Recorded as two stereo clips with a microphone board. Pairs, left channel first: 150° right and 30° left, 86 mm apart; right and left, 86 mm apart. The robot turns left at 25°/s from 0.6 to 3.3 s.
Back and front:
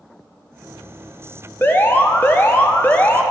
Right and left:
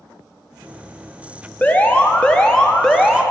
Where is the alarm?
135° right, 0.9 m; by 3.2 s 175° right, 0.9 m.